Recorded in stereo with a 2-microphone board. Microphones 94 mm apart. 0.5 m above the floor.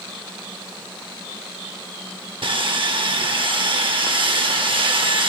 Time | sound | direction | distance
2.4 | sawing | 60° right (ahead or behind) | 0.7 m